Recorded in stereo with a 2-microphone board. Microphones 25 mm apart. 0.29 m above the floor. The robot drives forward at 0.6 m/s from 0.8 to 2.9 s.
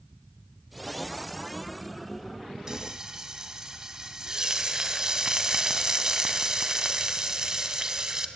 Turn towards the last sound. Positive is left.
turn(degrees=-25)  # may be behind; listen again after turning